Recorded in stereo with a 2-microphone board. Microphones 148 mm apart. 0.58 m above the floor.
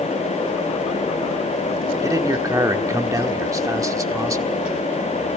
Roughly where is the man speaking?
Right.